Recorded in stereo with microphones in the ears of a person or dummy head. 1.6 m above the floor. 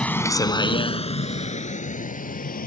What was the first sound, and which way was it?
A vehicle, centre (ahead or behind).